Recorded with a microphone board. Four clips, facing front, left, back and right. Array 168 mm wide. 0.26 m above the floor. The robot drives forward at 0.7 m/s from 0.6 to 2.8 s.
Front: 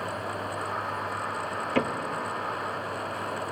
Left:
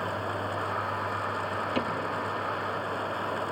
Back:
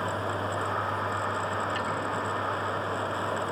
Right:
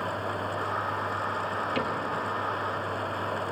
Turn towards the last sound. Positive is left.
turn(degrees=15)